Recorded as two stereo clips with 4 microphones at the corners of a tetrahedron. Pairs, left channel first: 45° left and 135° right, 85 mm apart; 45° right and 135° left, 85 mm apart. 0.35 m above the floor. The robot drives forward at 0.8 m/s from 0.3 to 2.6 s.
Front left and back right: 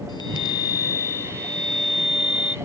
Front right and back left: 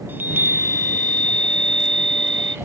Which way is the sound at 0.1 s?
65° left.